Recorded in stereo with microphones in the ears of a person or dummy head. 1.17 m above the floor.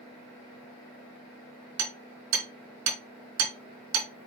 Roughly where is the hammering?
Right.